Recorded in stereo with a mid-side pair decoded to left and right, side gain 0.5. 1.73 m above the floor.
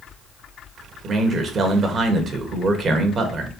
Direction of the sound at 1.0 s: 50° right.